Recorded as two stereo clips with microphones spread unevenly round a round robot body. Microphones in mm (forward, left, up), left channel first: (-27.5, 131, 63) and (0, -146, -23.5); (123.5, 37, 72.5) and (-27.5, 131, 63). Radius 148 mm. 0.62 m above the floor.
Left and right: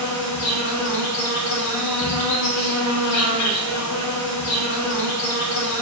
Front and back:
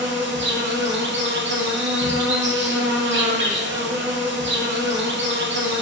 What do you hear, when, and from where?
0.0 s an insect: 130° left, 0.9 m